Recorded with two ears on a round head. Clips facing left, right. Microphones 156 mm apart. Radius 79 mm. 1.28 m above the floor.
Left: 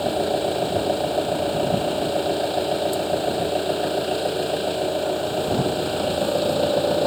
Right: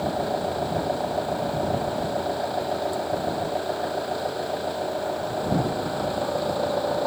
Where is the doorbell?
No doorbell in this recording.